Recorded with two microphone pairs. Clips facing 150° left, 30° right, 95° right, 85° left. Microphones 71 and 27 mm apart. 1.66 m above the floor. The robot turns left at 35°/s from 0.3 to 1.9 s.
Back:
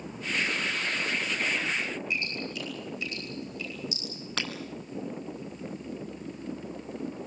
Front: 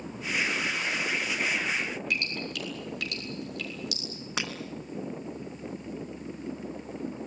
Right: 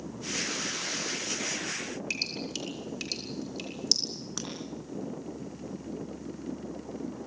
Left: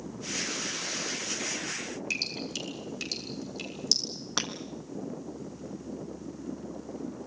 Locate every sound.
2.1 s dripping: 15° right, 7 m
4.4 s breaking glass: 45° left, 3 m